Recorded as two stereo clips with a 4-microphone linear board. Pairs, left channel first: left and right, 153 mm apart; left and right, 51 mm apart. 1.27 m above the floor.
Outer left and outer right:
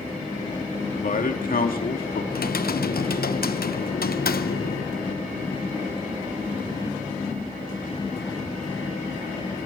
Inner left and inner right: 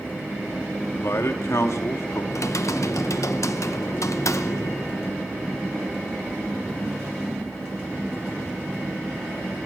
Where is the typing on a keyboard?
80° left, 0.9 m.